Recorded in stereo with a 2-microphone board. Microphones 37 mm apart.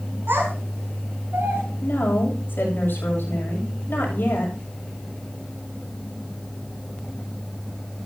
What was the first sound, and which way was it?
A child speaking, 80° right.